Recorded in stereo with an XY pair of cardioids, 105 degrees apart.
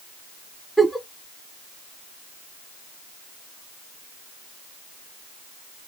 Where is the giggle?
5° left, 0.9 m.